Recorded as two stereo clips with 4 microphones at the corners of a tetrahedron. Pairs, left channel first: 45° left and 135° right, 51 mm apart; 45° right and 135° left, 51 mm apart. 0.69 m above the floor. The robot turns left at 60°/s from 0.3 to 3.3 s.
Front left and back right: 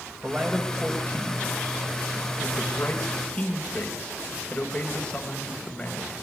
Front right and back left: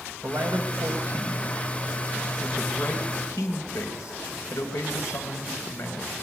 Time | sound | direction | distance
0.2 | a man speaking | 150° left | 3.5 m